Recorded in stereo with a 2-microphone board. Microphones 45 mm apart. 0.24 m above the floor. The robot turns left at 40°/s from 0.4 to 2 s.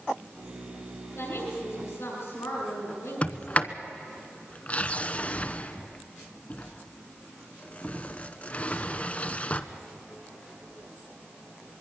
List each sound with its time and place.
1.1 s a woman speaking: 110° left, 7.5 m; by 3.5 s 75° left, 7.5 m
3.2 s a sliding door: 35° left (ahead or behind), 0.8 m